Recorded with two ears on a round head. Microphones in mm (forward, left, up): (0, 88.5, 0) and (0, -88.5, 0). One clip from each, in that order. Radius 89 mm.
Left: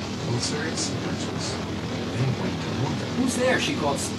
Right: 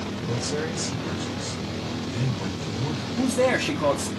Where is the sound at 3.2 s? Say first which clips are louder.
Right 1 dB; 5° left (ahead or behind), 1.3 m.